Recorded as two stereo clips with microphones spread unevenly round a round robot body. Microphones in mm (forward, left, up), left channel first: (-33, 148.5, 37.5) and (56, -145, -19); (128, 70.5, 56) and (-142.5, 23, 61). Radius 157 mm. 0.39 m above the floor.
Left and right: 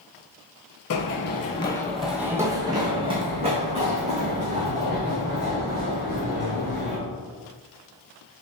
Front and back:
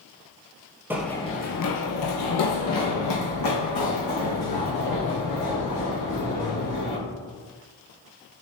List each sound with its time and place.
0.9 s running footsteps: 110° left, 0.5 m; by 7.0 s 5° right, 3.5 m